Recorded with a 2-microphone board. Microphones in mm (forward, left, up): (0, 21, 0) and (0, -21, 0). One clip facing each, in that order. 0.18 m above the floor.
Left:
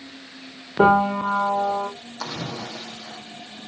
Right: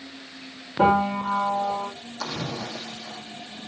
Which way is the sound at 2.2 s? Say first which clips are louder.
Even; 15° left (ahead or behind).